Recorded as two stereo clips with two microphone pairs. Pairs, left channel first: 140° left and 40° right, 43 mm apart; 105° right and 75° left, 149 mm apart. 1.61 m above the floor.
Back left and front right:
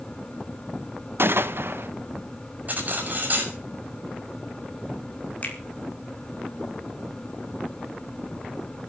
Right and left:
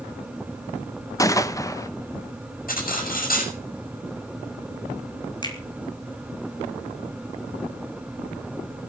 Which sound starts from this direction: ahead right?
A gunshot, at 1.2 s.